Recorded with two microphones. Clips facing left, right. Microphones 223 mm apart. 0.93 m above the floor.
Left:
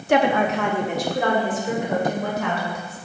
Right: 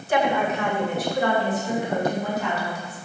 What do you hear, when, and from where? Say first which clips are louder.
0.1 s a woman speaking: left 4 dB; 70° left (ahead or behind), 1.1 m; by 3.0 s 85° left, 4 m